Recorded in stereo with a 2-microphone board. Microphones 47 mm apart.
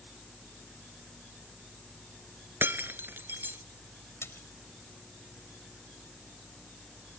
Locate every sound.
2.6 s breaking glass: 45° right (ahead or behind)
4.2 s a splash: 60° left (ahead or behind)